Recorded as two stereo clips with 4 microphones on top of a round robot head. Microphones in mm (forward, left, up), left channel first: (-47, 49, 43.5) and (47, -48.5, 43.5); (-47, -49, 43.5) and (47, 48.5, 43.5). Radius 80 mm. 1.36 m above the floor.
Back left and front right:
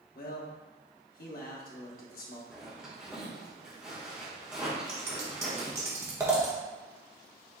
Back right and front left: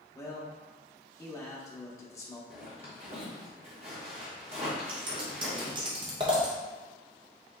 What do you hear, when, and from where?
0.1 s a man speaking: 155° left, 1.0 m
2.5 s a zipper: 35° left, 1.1 m
4.9 s scissors: 15° left, 0.6 m